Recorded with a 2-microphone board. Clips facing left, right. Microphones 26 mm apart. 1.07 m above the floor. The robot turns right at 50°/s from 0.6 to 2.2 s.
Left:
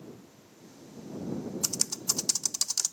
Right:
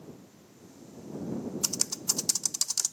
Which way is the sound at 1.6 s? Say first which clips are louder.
Even; 10° right (ahead or behind).